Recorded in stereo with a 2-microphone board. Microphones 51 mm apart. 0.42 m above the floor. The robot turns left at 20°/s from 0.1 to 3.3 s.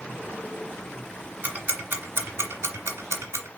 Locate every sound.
1.4 s ticking: 30° right (ahead or behind), 0.9 m; by 3.5 s 70° right (ahead or behind), 0.9 m